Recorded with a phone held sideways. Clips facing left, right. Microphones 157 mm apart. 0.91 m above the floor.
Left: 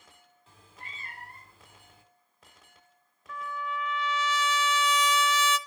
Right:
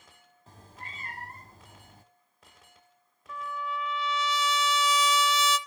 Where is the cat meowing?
40° right (ahead or behind), 1.3 m.